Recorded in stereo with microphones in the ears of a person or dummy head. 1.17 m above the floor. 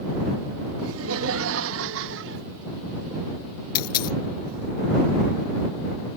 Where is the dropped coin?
50° left (ahead or behind).